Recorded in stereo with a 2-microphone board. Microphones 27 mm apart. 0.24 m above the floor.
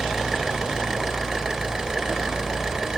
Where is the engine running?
20° right (ahead or behind), 3.5 m.